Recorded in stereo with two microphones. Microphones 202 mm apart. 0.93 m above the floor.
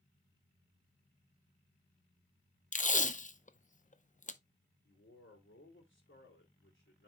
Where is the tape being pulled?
40° left (ahead or behind), 0.6 m.